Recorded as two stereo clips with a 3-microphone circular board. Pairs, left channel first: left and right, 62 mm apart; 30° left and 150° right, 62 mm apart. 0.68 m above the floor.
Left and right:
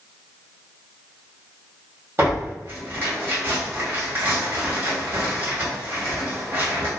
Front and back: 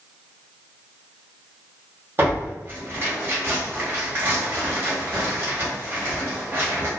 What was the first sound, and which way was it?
Tearing paper, 120° right.